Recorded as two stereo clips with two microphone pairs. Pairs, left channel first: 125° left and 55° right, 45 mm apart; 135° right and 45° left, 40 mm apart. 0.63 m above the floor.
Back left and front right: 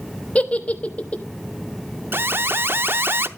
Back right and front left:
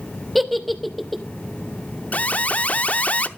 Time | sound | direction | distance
0.3 | a giggle | 135° left | 1.1 m
2.1 | an alarm | 85° right | 0.7 m